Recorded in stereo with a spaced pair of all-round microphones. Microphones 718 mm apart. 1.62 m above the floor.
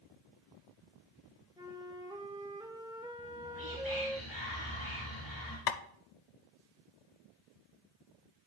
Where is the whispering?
25° left (ahead or behind), 1.4 m.